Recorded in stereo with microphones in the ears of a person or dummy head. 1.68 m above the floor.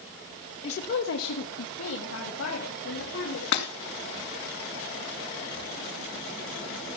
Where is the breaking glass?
45° left (ahead or behind), 2 m.